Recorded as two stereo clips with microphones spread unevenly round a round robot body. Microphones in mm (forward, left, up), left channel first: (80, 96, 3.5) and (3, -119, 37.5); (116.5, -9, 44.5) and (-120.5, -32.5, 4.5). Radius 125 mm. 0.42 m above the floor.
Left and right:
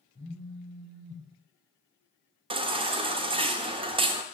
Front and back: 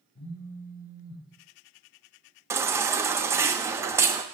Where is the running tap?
No running tap in this recording.